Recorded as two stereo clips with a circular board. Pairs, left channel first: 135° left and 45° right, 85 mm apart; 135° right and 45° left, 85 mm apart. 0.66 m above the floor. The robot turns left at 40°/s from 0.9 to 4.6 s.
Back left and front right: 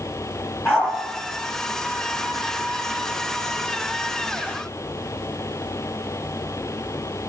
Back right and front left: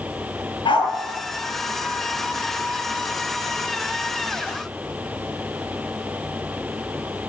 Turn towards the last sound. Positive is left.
turn(degrees=60)